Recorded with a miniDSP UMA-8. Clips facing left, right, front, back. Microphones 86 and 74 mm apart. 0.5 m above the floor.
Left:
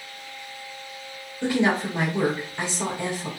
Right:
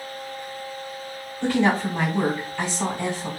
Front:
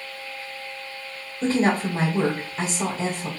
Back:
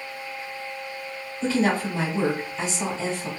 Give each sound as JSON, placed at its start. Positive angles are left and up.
{"t": 1.4, "sound": "a woman speaking", "azimuth_deg": 25, "distance_m": 1.8}